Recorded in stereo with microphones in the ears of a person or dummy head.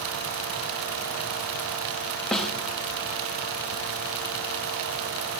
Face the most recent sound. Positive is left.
turn(degrees=5)  # may be behind; listen again after turning